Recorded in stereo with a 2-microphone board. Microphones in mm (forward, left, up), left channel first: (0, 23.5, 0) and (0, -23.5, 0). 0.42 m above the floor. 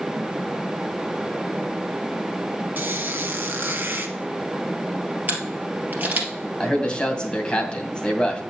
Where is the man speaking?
20° left (ahead or behind), 2 m.